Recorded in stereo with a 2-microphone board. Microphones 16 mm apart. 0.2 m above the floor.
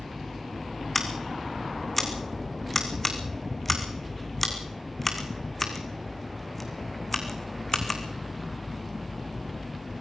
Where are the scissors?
5° left (ahead or behind), 2.5 m.